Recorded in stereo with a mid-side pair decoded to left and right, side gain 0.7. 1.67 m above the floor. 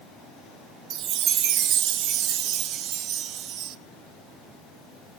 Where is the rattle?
No rattle in this recording.